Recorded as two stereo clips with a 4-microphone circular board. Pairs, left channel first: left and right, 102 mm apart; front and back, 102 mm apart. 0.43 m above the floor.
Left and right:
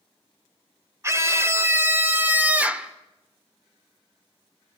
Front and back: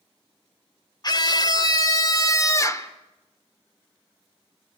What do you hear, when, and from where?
1.0 s a scream: 35° right, 2 m; by 2.9 s 20° right, 1.5 m